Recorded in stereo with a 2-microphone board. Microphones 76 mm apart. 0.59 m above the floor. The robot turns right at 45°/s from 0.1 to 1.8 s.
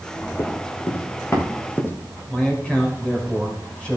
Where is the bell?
I don't hear a bell.